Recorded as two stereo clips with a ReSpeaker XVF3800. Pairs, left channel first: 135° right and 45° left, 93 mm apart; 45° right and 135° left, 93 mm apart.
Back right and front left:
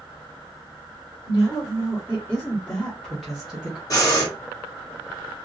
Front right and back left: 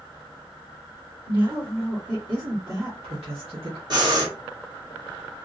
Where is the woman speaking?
175° left, 1.9 m; by 3.8 s 120° left, 1.3 m.